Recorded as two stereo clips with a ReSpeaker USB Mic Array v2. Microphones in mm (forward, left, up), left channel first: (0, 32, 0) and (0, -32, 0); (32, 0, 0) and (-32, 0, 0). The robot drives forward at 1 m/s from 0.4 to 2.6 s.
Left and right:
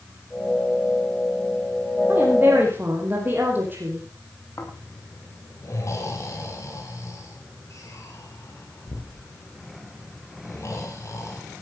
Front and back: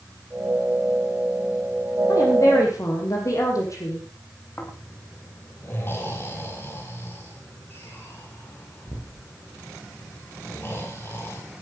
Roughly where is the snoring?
Ahead left.